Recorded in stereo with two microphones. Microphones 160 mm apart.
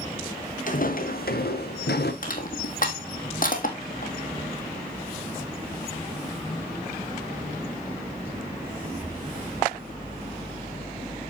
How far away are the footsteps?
About 1.5 m.